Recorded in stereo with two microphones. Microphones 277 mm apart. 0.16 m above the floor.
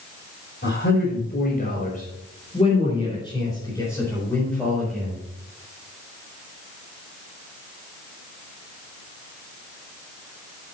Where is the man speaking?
40° left (ahead or behind), 4.5 m; by 5.2 s centre (ahead or behind), 4.5 m.